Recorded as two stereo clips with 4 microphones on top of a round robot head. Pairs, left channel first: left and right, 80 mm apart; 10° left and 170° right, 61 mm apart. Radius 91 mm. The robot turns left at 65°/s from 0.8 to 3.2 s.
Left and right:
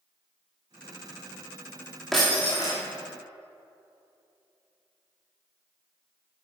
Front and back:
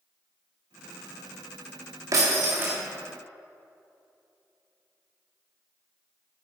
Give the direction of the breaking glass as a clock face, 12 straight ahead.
6 o'clock.